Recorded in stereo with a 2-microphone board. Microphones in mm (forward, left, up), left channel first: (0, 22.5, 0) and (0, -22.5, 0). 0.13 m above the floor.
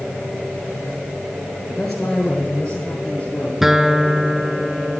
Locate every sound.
1.7 s a man speaking: 5° left (ahead or behind), 1.8 m; by 3.5 s 20° left (ahead or behind), 2.5 m
3.6 s a guitar: 5° right (ahead or behind), 0.6 m